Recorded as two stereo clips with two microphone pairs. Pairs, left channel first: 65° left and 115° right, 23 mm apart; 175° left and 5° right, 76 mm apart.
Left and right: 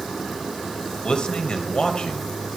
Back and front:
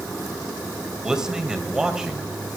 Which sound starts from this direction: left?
A man speaking, at 1.0 s.